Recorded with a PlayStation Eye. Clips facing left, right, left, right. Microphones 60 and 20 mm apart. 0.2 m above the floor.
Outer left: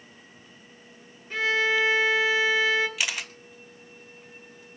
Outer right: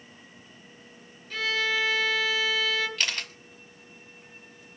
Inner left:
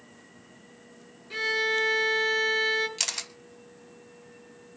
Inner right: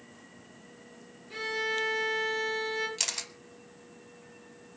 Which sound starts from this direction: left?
A violin, at 1.3 s.